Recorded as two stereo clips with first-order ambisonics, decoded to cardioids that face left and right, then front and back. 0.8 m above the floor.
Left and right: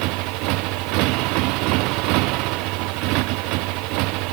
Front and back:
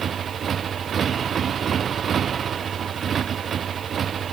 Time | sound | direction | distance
0.0 | a motorcycle | 115° right | ?